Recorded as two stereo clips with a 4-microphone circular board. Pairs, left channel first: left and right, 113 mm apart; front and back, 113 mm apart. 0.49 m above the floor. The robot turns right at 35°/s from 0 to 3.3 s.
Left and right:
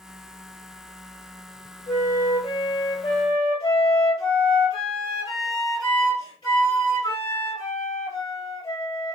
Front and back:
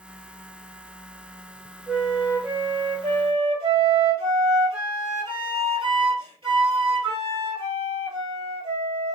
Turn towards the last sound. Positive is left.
turn(degrees=135)